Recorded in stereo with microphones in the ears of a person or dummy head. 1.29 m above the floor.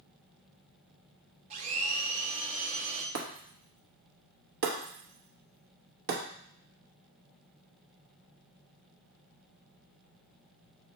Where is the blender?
35° right (ahead or behind), 0.7 m.